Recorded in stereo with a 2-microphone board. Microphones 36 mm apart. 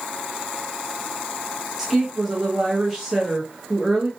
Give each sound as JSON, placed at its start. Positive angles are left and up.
{"t": 1.8, "sound": "a woman speaking", "side_deg": 0, "distance_m": 0.9}